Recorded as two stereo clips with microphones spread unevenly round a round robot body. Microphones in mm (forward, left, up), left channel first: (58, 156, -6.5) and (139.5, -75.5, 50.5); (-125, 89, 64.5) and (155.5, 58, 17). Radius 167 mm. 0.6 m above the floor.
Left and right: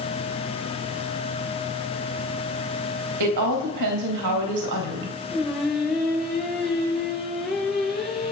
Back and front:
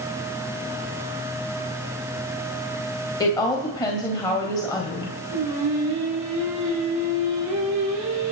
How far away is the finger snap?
I don't hear a finger snap.